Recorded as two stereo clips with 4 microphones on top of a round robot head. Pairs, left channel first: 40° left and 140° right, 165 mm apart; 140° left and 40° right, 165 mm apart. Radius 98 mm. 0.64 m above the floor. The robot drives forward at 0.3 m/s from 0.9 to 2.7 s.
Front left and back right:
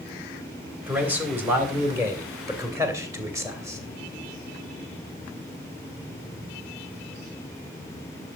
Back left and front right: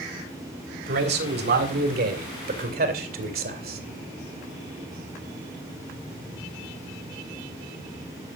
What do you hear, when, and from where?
0.9 s a man speaking: 60° right, 3 m; by 3.8 s 70° right, 3 m